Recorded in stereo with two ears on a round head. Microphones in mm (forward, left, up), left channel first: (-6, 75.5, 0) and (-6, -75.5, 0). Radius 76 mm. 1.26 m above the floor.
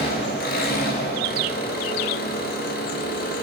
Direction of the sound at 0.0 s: 60° left (ahead or behind).